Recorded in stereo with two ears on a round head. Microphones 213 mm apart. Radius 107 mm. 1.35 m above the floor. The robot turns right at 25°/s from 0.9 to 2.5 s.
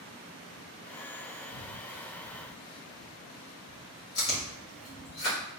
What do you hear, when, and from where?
1.5 s breathing: 45° left (ahead or behind), 0.5 m; by 4.7 s 20° left (ahead or behind), 0.5 m
4.2 s chewing: 75° left (ahead or behind), 1.6 m